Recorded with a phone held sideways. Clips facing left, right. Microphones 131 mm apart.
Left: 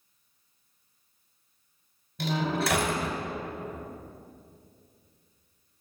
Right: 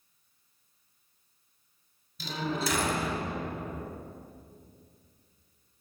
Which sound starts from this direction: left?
A door slam, at 2.2 s.